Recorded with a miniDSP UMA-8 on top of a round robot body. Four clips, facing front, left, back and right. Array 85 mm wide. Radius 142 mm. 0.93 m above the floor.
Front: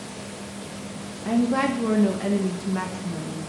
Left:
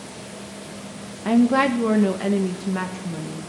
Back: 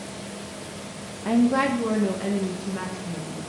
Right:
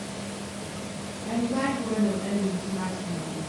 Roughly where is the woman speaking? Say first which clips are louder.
Left 9 dB, back 1 dB; left.